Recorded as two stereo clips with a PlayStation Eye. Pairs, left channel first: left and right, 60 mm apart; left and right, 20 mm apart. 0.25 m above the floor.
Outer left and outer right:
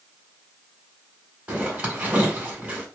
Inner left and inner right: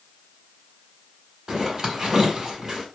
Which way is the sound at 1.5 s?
20° right (ahead or behind).